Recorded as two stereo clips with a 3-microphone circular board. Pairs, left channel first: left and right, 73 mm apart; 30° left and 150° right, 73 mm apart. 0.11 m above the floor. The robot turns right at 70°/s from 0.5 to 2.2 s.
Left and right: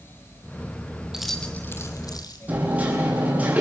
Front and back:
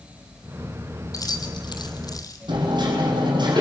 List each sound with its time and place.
1.1 s keys jangling: 10° right, 3 m; by 2.4 s 65° left, 3 m
2.5 s hammering: 160° right, 8 m